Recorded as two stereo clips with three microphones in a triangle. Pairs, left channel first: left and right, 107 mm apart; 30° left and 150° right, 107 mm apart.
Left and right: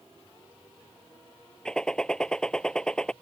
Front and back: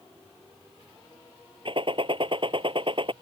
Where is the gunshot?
175° left.